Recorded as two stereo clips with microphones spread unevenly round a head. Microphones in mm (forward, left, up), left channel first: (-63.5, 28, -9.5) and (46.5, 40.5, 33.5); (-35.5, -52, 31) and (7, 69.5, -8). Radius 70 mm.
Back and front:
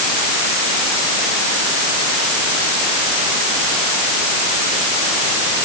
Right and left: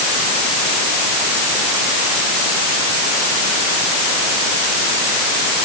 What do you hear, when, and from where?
Only background noise.